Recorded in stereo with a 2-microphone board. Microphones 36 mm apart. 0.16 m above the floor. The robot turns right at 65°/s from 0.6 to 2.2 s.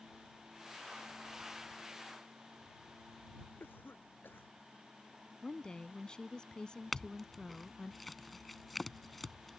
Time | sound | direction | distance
3.6 | a cough | 75° left (ahead or behind) | ?
5.4 | a woman speaking | 25° left (ahead or behind) | ?
6.9 | a clink | 5° left (ahead or behind) | ?